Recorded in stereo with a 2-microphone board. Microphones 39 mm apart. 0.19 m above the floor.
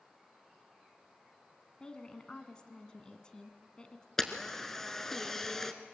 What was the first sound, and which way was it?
A woman speaking, 25° left (ahead or behind).